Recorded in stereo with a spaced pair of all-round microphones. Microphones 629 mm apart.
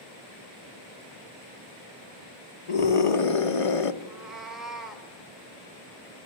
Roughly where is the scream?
Left.